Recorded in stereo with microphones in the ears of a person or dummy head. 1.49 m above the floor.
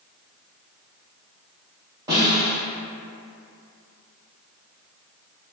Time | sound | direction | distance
2.1 | a snare drum | 20° right (ahead or behind) | 1.7 m